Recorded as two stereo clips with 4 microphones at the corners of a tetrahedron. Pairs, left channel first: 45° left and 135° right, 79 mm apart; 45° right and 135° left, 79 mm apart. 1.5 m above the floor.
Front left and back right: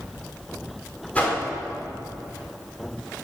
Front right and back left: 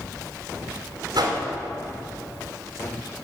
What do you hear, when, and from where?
1.1 s a whoosh: 115° left, 3.5 m